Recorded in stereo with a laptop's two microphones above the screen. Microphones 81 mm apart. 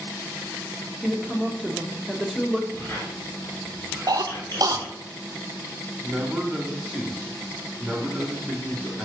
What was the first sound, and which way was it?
A woman speaking, centre (ahead or behind).